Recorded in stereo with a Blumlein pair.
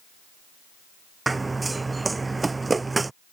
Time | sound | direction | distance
1.3 | running footsteps | 10° right | ?